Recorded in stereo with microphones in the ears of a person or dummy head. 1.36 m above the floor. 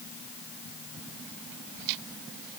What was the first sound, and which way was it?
Only background noise.